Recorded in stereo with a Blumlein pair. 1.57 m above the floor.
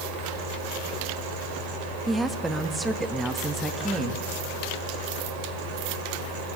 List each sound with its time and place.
0.0 s a fan: 45° right, 5 m
2.1 s a woman speaking: 10° right, 2 m